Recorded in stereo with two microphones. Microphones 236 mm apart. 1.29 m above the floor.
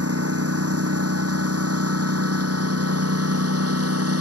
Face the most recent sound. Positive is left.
turn(degrees=-80)